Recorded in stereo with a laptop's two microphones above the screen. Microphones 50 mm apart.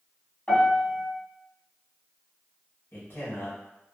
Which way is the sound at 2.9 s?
50° left (ahead or behind).